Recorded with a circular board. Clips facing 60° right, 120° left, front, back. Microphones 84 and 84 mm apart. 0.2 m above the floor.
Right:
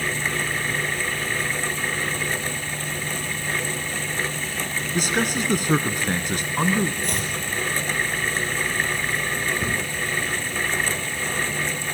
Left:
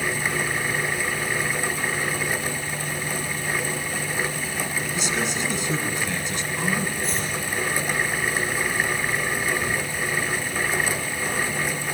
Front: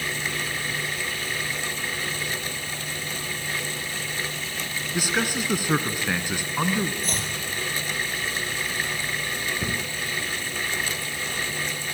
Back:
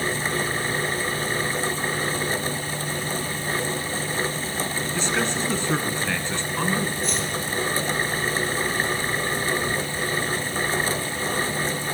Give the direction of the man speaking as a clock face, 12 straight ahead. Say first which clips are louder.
Right 5 dB, even; 2 o'clock.